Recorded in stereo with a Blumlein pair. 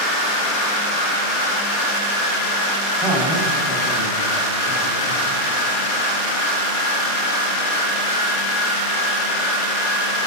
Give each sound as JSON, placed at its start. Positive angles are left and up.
{"t": 3.0, "sound": "a man speaking", "azimuth_deg": 0, "distance_m": 6.5}